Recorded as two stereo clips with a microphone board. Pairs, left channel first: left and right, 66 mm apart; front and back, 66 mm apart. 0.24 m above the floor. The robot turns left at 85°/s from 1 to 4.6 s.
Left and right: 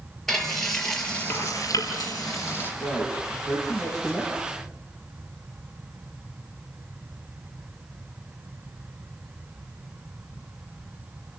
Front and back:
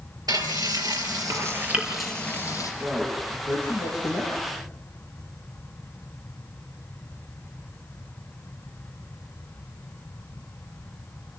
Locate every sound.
0.3 s frying: 175° left, 3.5 m; by 2.7 s 30° left, 3.5 m
2.8 s a man speaking: 115° left, 6.5 m; by 4.5 s 25° right, 6.5 m